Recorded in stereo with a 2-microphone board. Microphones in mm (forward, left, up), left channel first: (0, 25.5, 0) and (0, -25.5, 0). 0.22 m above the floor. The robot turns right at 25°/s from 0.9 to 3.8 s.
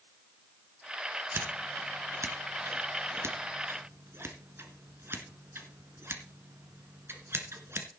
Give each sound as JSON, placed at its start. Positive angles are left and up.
{"t": 1.3, "sound": "scissors", "side_deg": -55, "distance_m": 2.0}